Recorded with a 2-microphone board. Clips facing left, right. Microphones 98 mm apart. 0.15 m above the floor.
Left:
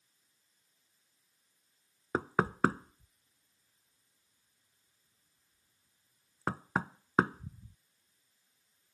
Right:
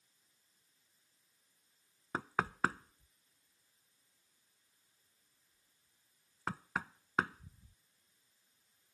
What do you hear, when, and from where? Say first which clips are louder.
2.1 s knocking: left 6 dB; 40° left (ahead or behind)